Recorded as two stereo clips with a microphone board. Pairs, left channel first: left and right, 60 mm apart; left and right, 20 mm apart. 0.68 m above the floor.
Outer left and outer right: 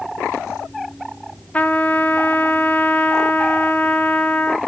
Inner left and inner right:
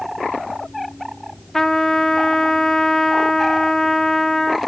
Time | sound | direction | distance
1.5 | a trumpet | 25° left (ahead or behind) | 0.6 m